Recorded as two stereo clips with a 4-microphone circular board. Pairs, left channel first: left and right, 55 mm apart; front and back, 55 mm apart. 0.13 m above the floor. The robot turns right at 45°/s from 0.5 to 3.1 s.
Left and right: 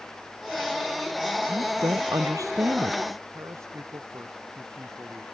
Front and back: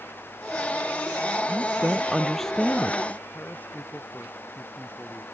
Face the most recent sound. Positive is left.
turn(degrees=-60)